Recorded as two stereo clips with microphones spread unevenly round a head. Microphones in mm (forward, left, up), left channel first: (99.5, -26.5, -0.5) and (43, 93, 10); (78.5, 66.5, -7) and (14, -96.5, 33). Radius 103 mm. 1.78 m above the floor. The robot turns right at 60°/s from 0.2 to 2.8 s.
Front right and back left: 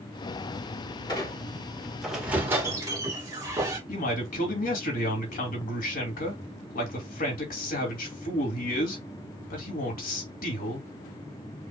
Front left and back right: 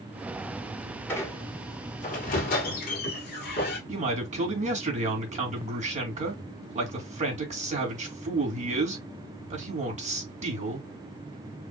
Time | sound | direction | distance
1.1 | a squeak | 25° right | 1.6 m
3.9 | a man speaking | 65° right | 2.5 m